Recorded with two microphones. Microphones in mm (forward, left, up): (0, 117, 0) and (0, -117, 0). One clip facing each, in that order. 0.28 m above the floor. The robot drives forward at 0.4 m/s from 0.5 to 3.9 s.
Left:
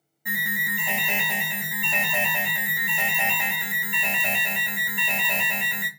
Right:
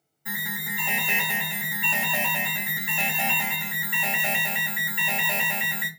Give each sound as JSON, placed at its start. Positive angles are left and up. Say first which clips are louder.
{"t": 0.2, "sound": "an alarm", "louder": "left 2 dB", "side_deg": 15, "distance_m": 1.8}